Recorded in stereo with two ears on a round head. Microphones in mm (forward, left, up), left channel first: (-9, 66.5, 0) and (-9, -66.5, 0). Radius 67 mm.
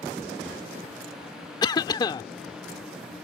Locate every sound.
1.6 s a cough: 30° left (ahead or behind)